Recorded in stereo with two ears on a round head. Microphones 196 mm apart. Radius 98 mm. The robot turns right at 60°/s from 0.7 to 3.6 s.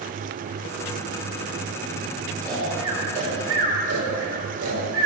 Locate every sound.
2.4 s snoring: 10° left (ahead or behind), 4 m; by 5.1 s 60° right (ahead or behind), 4 m